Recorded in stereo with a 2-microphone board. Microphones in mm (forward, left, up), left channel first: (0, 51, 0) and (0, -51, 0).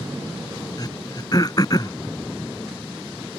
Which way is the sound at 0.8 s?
40° left (ahead or behind).